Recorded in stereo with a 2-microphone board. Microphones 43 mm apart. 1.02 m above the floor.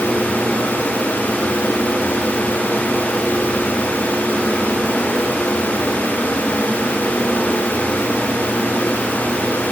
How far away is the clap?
I don't hear a clap.